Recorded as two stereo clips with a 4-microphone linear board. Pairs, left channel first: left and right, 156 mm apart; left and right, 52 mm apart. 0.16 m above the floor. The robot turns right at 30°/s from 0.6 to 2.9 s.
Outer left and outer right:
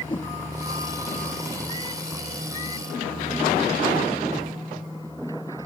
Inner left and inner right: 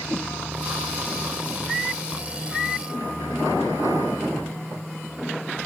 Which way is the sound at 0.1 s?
30° left (ahead or behind).